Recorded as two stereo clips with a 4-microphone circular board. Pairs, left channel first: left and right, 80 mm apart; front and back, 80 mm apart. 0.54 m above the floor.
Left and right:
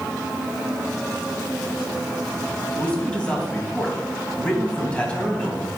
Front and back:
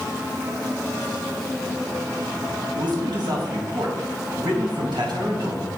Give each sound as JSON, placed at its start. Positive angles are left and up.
{"t": 2.8, "sound": "a man speaking", "azimuth_deg": 165, "distance_m": 3.5}